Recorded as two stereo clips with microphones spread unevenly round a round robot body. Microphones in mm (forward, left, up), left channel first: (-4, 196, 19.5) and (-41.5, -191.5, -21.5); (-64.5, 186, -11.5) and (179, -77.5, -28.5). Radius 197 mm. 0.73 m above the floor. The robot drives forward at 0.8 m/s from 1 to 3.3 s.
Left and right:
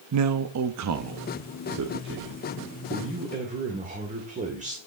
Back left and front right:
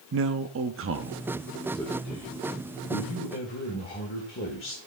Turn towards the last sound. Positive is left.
turn(degrees=-165)